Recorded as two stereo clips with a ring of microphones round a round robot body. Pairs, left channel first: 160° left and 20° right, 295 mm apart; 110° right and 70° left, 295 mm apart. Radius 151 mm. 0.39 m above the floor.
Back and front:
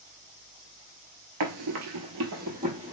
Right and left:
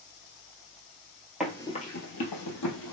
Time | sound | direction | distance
1.4 | running footsteps | 20° right | 0.6 m